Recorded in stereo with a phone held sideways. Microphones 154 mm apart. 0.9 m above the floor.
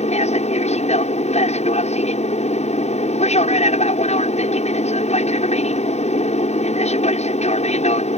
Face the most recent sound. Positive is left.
turn(degrees=50)  # may be behind; listen again after turning